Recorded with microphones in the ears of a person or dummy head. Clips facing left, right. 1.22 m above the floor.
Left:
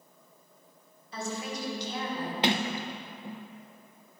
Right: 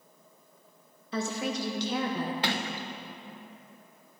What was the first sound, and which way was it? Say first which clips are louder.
A woman speaking: right 4 dB; 55° right (ahead or behind).